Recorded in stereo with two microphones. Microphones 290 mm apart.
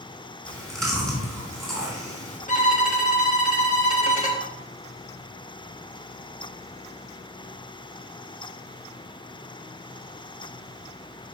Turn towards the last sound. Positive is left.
turn(degrees=25)  # may be behind; listen again after turning